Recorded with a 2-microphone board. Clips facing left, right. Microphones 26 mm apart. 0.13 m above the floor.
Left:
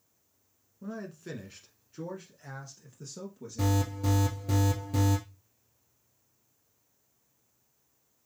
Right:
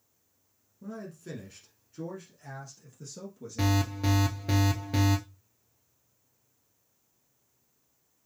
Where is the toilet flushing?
I don't hear a toilet flushing.